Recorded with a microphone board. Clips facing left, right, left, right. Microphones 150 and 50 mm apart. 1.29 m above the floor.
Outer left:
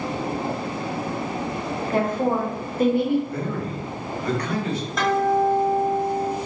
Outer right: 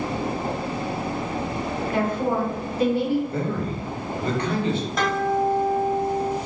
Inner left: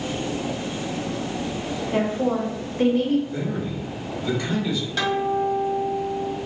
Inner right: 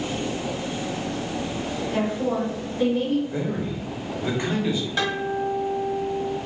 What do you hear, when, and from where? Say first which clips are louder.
1.9 s a woman speaking: outer left 2 dB, inner left 2 dB; 40° left (ahead or behind), 1.4 m; by 3.2 s 60° left (ahead or behind), 0.9 m
3.3 s a man speaking: outer right 1 dB, even; 25° right (ahead or behind), 1.0 m
5.0 s a guitar: outer left 4 dB, inner left 6 dB; centre (ahead or behind), 1.3 m